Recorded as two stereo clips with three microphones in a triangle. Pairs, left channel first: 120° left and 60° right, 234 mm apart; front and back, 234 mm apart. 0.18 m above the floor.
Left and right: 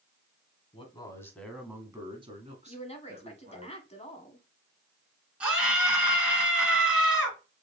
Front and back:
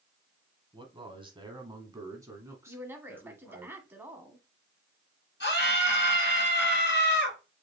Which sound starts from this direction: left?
A woman speaking, at 2.7 s.